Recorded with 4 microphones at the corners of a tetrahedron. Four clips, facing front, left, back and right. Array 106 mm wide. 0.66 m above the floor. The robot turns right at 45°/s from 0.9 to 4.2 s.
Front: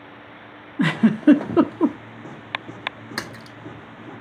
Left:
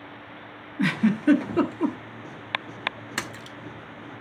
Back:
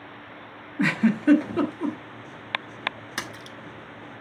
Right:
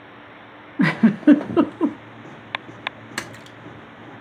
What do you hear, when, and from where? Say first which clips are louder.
0.8 s a giggle: right 6 dB, front 4 dB; 65° right, 1.2 m; by 2.0 s 20° right, 1.2 m
3.2 s a splash: right 1 dB, front 2 dB; 10° right, 0.8 m; by 3.6 s 10° left, 0.8 m